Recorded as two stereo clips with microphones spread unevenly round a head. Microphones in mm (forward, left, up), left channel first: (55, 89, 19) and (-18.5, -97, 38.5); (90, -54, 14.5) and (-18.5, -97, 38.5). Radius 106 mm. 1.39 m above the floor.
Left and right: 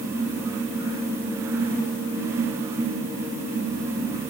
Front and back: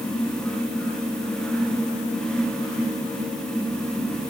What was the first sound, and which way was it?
Only background noise.